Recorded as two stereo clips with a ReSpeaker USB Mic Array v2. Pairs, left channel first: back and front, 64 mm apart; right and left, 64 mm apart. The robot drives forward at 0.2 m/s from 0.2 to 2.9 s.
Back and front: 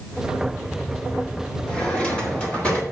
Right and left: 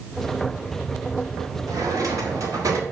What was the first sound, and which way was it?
A drawer, 105° left.